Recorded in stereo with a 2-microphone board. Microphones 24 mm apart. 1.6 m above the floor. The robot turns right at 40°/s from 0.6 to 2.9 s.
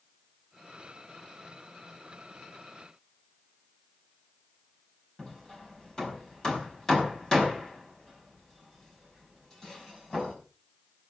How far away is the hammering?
About 5.5 m.